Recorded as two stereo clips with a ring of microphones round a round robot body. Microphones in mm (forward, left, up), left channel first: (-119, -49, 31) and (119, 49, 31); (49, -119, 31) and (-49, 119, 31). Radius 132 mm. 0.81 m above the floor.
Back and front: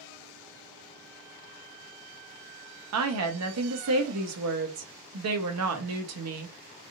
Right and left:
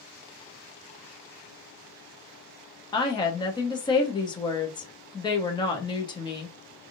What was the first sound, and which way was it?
A woman speaking, 5° left.